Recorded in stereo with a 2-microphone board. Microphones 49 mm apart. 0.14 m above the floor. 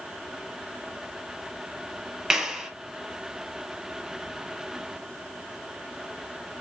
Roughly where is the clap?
Centre.